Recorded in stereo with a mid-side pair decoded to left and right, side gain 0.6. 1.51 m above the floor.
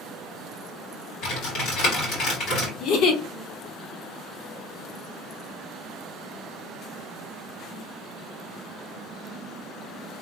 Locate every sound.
1.2 s typing on a keyboard: 65° left, 2.5 m
2.8 s a giggle: 60° left, 0.8 m